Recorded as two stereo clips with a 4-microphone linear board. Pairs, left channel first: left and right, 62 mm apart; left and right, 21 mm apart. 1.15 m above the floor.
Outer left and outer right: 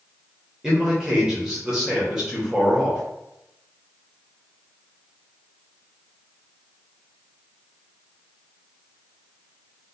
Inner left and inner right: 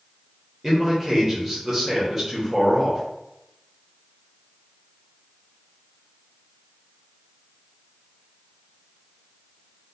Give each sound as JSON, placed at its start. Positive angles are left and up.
{"t": 0.6, "sound": "a man speaking", "side_deg": -10, "distance_m": 1.1}